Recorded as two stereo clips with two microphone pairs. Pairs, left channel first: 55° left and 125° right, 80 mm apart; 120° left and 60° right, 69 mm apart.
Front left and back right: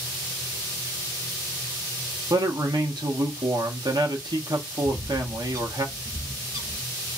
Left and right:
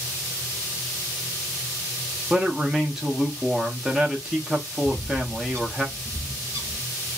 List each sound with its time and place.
2.3 s a man speaking: 140° right, 0.9 m
4.8 s a bird: 90° right, 1.2 m